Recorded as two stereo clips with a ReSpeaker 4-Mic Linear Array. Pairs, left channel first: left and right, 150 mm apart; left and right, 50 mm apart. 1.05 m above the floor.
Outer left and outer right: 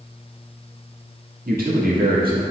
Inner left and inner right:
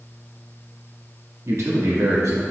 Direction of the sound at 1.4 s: 75° right (ahead or behind).